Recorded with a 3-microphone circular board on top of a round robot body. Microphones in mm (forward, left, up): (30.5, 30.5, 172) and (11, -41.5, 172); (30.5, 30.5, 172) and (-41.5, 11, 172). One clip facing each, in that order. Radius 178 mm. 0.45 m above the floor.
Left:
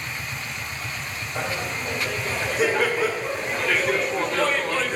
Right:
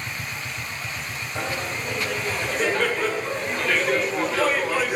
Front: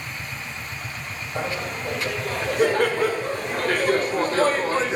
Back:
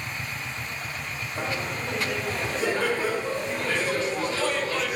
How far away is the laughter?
About 2.5 m.